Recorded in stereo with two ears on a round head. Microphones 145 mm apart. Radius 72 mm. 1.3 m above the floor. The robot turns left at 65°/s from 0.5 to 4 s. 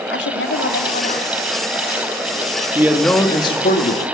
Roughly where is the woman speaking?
Left.